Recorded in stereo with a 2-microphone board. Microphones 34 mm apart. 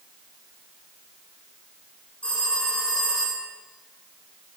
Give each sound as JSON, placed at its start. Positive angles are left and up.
{"t": 2.2, "sound": "a phone ringing", "side_deg": 30, "distance_m": 7.5}